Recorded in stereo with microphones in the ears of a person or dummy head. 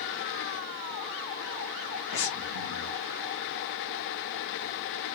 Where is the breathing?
65° left (ahead or behind), 1.4 m.